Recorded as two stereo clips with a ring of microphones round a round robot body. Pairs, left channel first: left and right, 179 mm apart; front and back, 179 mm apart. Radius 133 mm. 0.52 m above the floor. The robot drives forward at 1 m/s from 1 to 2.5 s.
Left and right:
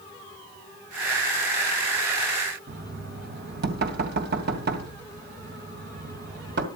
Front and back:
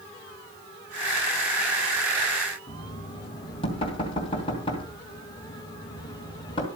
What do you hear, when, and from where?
2.7 s knocking: 70° right, 2.5 m